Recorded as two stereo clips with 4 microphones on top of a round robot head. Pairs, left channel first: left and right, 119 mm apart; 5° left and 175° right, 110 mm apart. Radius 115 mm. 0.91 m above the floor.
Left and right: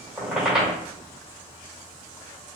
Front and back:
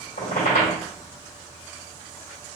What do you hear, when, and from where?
0.2 s a squeak: 5° right, 1.5 m